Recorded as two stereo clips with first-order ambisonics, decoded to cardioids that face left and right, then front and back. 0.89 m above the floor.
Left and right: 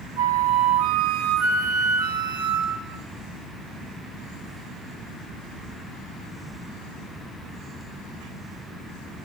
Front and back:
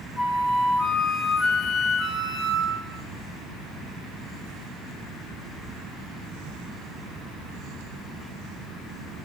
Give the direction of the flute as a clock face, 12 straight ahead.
3 o'clock.